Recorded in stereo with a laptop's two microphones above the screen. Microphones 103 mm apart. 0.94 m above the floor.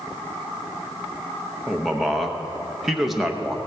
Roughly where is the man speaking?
Centre.